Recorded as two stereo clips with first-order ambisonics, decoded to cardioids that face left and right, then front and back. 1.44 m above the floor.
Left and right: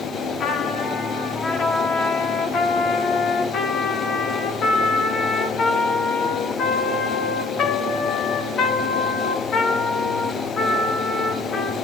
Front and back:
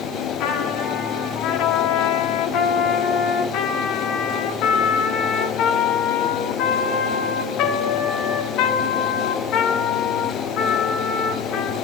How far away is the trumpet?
About 1.2 m.